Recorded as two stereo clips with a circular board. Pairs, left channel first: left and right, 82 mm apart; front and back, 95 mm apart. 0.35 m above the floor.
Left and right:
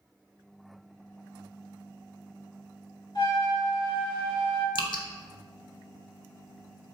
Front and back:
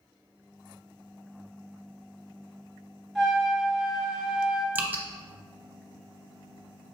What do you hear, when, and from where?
3.1 s a trumpet: 95° left, 1.6 m
4.8 s dripping: 110° left, 0.5 m